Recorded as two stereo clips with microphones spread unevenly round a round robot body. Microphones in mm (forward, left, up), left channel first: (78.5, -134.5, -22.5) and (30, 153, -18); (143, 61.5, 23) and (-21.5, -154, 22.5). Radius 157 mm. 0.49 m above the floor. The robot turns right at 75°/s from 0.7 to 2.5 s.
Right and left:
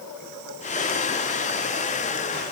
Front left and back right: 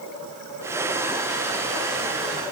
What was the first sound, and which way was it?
Only background noise.